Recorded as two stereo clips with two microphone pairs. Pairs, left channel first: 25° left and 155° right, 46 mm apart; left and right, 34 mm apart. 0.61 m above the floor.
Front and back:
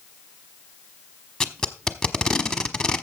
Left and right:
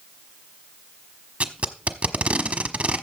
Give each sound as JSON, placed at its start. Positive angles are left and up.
{"t": 1.4, "sound": "tape being pulled", "azimuth_deg": -50, "distance_m": 1.1}